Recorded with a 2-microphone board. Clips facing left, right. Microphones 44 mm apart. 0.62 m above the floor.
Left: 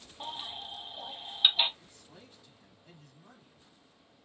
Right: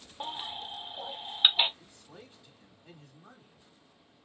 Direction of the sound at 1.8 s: 20° right (ahead or behind).